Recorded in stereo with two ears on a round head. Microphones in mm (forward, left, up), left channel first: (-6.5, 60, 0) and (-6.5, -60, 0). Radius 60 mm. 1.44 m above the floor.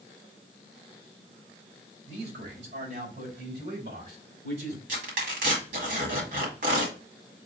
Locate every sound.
2.1 s a man speaking: 80° right, 3 m
4.9 s tearing paper: 70° right (ahead or behind), 2.5 m